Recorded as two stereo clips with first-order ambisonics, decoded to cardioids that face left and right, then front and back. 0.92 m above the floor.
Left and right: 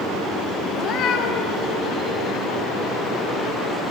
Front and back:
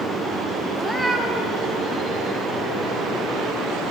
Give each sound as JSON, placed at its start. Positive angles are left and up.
{"t": 0.8, "sound": "a cat meowing", "azimuth_deg": 105, "distance_m": 0.6}